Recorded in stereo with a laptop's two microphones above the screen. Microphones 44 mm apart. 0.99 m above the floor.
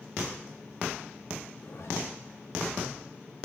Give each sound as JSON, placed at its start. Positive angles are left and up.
{"t": 1.6, "sound": "a zipper", "side_deg": 60, "distance_m": 1.6}